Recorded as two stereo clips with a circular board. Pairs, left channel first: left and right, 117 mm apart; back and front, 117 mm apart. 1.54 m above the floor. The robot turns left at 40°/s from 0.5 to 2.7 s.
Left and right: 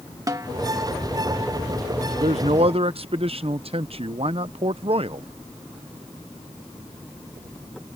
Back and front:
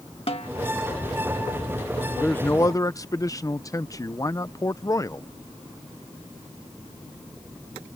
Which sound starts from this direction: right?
A man speaking, at 2.1 s.